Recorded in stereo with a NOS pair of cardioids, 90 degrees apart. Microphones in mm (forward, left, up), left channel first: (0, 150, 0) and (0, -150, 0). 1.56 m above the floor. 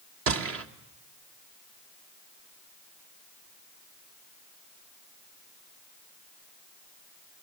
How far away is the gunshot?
About 1.7 m.